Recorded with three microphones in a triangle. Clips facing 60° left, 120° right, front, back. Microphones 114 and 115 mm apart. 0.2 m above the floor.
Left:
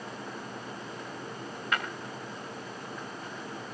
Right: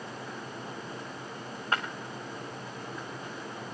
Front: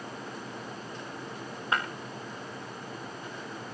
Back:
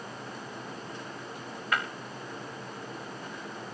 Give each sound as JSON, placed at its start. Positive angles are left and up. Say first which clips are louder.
{"t": 1.7, "sound": "breaking glass", "louder": "right 1 dB, front 1 dB", "azimuth_deg": -65, "distance_m": 6.0}